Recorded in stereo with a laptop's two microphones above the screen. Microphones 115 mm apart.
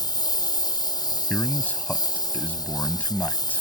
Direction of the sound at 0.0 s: 35° left (ahead or behind).